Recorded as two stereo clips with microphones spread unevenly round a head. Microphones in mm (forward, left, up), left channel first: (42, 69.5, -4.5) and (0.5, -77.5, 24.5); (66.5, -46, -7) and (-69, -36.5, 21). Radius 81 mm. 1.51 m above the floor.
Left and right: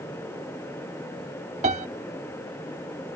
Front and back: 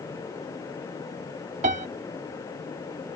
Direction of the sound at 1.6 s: 155° right.